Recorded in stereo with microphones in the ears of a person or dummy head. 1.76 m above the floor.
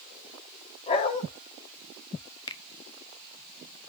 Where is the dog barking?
30° left (ahead or behind), 2 m.